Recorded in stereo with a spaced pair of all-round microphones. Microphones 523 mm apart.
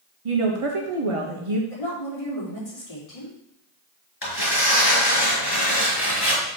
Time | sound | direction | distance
0.2 | a woman speaking | 70° right (ahead or behind) | 1.2 m
1.7 | a woman speaking | 80° left | 3.5 m
4.2 | tearing paper | 45° left (ahead or behind) | 4.5 m